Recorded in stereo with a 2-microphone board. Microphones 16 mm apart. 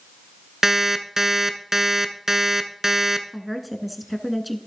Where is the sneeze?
No sneeze in this recording.